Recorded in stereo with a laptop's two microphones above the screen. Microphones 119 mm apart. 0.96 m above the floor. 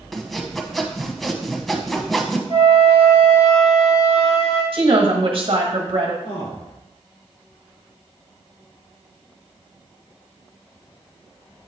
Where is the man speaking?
70° left (ahead or behind), 3 m.